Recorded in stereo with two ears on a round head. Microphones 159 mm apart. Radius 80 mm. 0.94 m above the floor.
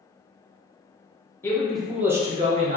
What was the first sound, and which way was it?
A man speaking, 15° left (ahead or behind).